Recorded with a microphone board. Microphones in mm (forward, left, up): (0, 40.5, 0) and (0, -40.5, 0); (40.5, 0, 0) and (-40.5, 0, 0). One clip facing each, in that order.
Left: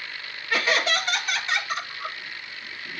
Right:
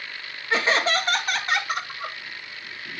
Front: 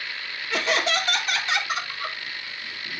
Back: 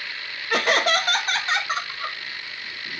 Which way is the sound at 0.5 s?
155° right.